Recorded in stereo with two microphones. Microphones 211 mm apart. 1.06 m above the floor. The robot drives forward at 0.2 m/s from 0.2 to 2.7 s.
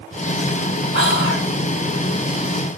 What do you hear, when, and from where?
0.9 s whispering: 65° left (ahead or behind), 1.7 m